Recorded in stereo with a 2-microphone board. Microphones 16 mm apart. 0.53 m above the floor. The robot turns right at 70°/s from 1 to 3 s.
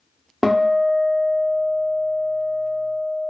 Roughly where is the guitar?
Ahead.